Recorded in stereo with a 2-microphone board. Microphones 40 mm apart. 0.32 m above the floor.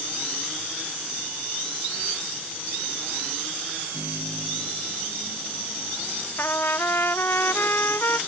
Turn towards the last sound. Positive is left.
turn(degrees=70)  # may be behind; listen again after turning